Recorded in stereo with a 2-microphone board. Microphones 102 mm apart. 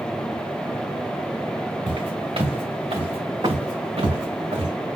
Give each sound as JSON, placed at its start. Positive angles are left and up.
{"t": 1.9, "sound": "footsteps", "side_deg": -60, "distance_m": 2.5}